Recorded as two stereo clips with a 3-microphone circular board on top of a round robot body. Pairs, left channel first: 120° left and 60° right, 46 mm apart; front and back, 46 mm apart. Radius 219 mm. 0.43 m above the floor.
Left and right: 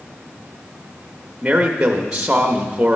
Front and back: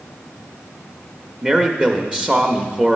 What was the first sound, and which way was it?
A man speaking, 120° right.